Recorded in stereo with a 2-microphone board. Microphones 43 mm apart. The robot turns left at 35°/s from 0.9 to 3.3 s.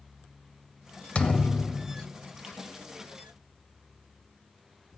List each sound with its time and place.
1.1 s a thud: 45° left, 0.8 m; by 2.1 s 10° left, 0.8 m